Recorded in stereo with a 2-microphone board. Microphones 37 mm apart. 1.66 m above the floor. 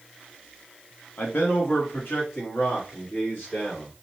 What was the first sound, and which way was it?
A man speaking, 80° left.